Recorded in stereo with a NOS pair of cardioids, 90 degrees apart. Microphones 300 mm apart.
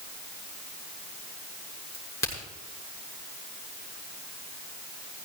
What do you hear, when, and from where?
1.9 s a crack: 10° left, 7.5 m